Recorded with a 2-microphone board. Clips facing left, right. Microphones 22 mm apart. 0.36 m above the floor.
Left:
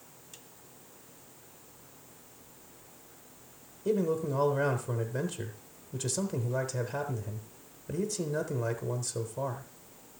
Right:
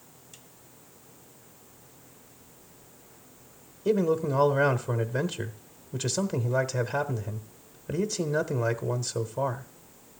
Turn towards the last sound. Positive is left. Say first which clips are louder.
# right 4 dB
turn(degrees=-30)  # may be behind; listen again after turning